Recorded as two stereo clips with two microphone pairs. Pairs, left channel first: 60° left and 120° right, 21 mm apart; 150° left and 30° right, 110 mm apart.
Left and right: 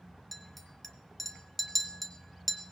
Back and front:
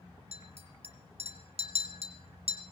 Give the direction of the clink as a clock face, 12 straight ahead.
1 o'clock.